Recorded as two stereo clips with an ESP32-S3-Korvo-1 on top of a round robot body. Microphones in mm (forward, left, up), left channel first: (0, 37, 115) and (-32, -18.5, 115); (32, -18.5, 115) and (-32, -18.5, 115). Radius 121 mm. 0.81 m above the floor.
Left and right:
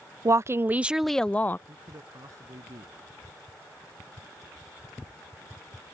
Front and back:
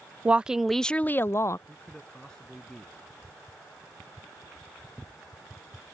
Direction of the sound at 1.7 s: 80° right.